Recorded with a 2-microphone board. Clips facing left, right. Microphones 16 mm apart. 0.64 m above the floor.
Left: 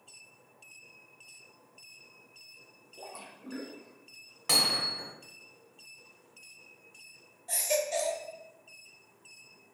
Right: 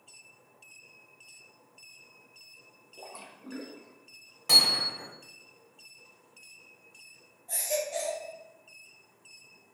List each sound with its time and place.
3.0 s a splash: 10° right (ahead or behind), 0.5 m
4.5 s hammering: 25° left (ahead or behind), 1.4 m
7.5 s a baby crying: 60° left (ahead or behind), 0.9 m